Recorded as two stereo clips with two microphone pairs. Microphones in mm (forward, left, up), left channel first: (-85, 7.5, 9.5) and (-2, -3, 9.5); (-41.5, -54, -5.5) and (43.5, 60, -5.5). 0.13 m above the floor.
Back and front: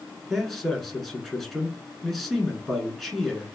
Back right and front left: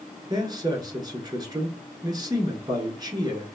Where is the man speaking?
90° left, 1.3 m.